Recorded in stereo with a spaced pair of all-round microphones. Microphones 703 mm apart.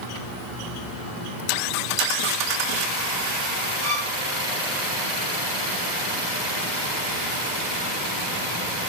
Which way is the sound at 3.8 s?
20° right (ahead or behind).